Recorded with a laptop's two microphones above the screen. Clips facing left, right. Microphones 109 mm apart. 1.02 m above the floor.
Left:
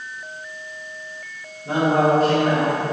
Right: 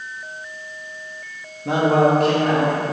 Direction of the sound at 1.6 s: 85° right.